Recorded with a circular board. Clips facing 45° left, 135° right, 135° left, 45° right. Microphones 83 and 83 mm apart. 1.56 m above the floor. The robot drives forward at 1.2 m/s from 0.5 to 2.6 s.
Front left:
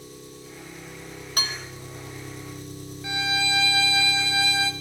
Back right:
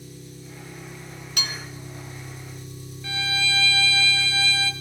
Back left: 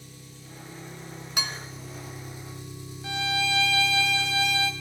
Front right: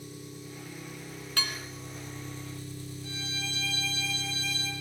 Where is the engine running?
30° left, 4 m; by 4.8 s 65° left, 2.5 m.